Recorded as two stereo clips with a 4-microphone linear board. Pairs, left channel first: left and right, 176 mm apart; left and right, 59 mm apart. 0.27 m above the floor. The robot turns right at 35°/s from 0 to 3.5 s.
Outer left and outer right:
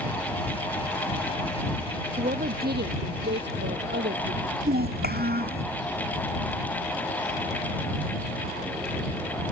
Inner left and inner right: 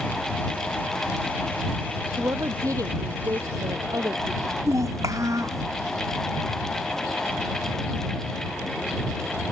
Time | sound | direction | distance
2.2 | a woman speaking | 130° right | ?
4.7 | a child speaking | 60° right (ahead or behind) | ?